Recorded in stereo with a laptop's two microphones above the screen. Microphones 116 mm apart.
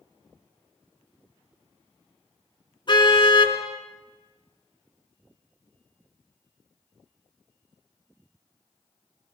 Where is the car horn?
40° left (ahead or behind), 5.5 m.